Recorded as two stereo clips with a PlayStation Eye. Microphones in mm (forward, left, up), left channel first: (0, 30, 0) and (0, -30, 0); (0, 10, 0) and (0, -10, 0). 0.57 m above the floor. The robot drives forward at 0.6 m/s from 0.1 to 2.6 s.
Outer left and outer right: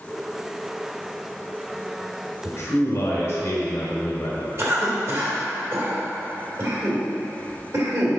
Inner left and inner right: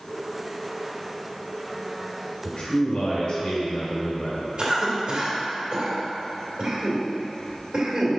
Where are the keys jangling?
No keys jangling in this recording.